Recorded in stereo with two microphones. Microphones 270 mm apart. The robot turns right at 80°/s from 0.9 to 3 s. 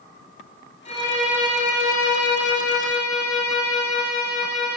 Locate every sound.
0.8 s a violin: 155° left, 4.5 m; by 4.8 s 40° right, 4.5 m